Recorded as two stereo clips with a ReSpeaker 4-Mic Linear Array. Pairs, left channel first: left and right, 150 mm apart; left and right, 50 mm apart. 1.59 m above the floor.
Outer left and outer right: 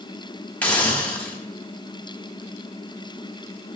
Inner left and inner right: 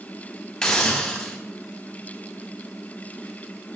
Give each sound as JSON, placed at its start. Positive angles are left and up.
{"t": 0.6, "sound": "a hiss", "side_deg": 10, "distance_m": 1.6}